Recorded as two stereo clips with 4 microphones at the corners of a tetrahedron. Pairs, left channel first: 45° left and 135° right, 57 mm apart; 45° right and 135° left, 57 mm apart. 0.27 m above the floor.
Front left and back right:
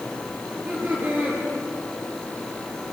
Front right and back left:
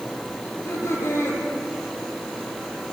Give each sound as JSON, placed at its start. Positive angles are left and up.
{"t": 0.4, "sound": "laughter", "azimuth_deg": -80, "distance_m": 9.0}